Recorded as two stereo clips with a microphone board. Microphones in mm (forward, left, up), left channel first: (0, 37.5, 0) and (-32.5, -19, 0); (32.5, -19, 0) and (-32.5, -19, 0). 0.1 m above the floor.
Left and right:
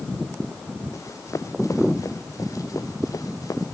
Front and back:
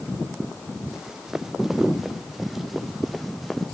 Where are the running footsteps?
100° left; by 3.8 s 90° left.